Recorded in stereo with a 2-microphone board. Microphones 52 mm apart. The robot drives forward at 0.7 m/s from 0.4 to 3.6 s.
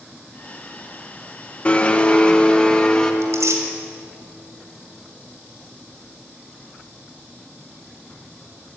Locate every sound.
1.6 s a blender: 25° left (ahead or behind), 1.5 m; by 3.1 s 15° left (ahead or behind), 2.5 m
3.2 s tearing paper: 70° right (ahead or behind), 4 m; by 3.6 s 75° right (ahead or behind), 3.5 m